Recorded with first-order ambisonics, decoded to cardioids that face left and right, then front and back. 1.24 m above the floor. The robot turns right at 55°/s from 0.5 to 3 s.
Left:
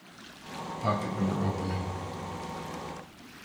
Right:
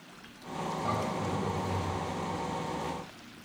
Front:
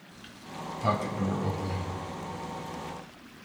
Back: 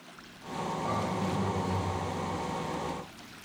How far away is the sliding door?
About 1.8 m.